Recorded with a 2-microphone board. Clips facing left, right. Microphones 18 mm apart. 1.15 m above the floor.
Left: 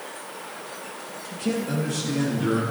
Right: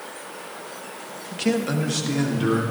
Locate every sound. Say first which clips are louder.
1.3 s a man speaking: right 3 dB; 60° right (ahead or behind), 1.1 m; by 2.6 s 30° right (ahead or behind), 3 m